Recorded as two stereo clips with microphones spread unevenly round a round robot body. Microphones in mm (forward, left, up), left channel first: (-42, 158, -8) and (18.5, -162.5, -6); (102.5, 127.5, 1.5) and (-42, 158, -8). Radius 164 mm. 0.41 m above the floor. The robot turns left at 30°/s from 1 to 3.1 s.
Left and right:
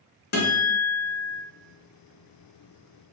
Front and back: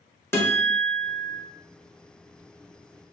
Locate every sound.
0.3 s a guitar: 65° left, 0.9 m; by 1.4 s 55° left, 0.9 m